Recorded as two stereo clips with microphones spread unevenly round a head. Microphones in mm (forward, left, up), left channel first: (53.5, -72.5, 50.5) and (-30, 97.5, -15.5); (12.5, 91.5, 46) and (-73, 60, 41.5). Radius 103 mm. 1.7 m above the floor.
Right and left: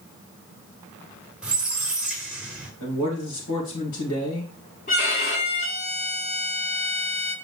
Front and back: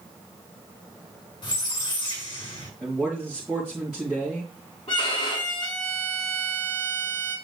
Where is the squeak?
20° left, 1.9 m.